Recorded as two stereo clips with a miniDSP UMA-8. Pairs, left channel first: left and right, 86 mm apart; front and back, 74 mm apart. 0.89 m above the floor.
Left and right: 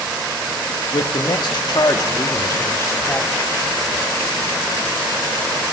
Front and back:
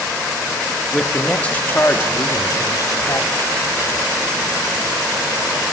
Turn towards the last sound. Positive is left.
turn(degrees=30)